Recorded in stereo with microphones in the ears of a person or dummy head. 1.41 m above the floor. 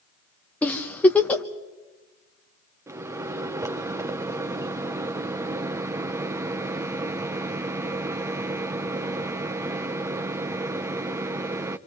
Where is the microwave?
15° right (ahead or behind), 0.6 m.